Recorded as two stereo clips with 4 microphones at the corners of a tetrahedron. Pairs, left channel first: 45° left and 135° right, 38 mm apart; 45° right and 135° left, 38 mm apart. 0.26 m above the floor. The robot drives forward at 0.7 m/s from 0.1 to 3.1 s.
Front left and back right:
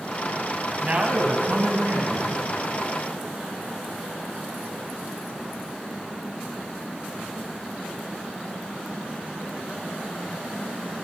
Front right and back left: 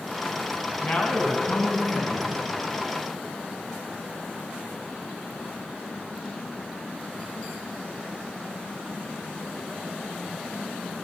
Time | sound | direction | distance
0.8 | a man speaking | 80° right | 1.8 m